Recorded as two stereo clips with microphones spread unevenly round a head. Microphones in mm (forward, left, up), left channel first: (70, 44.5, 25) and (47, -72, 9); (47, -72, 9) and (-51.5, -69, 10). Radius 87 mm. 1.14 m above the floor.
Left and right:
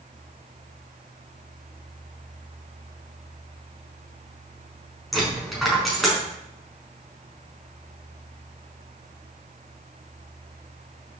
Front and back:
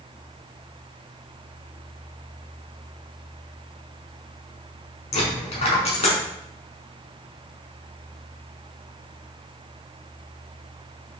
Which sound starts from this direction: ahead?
A dropped coin, at 5.1 s.